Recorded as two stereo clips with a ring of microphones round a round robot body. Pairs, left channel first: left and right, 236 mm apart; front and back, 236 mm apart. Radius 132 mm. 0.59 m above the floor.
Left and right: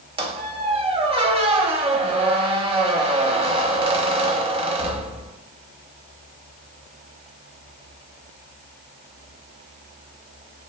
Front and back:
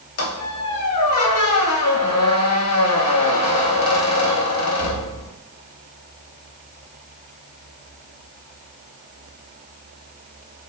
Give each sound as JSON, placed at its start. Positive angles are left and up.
{"t": 0.2, "sound": "a squeak", "azimuth_deg": -25, "distance_m": 0.5}